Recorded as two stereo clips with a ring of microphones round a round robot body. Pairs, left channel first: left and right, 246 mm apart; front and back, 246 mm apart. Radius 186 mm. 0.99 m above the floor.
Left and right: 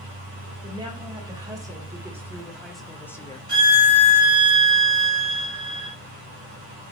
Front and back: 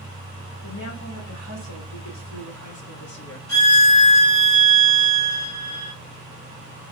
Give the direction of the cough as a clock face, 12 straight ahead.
No cough in this recording.